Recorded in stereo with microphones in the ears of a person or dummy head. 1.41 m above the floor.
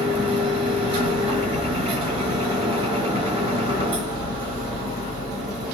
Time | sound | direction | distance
0.0 | a machine running | 35° right (ahead or behind) | 2.5 m